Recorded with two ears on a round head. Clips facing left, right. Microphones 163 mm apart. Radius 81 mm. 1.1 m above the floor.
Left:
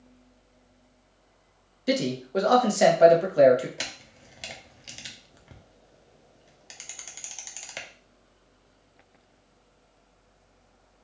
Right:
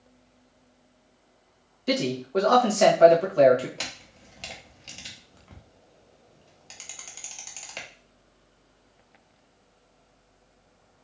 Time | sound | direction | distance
1.9 | a man speaking | 10° left (ahead or behind) | 1.4 m
3.8 | a camera shutter | 10° left (ahead or behind) | 0.9 m